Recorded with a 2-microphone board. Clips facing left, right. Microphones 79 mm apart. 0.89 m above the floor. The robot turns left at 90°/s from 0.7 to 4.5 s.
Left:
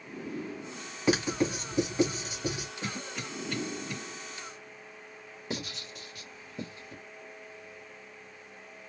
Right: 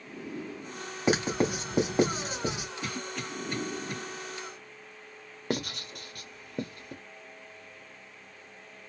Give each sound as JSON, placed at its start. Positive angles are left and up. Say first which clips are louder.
{"t": 1.1, "sound": "writing", "louder": "right 1 dB", "side_deg": -25, "distance_m": 2.0}
{"t": 2.8, "sound": "a cough", "louder": "right 2 dB", "side_deg": 30, "distance_m": 1.6}
{"t": 5.5, "sound": "writing", "louder": "right 5 dB", "side_deg": -55, "distance_m": 1.0}